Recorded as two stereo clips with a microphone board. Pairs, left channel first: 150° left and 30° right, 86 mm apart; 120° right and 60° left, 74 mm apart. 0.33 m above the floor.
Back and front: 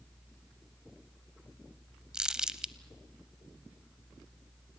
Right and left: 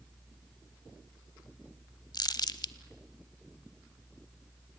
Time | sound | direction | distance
2.1 | crumpling | 110° right | 0.7 m